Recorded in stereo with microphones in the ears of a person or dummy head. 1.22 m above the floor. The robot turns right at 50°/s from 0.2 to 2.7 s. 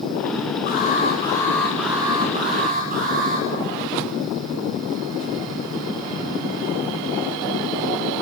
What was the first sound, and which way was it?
An alarm, 125° left.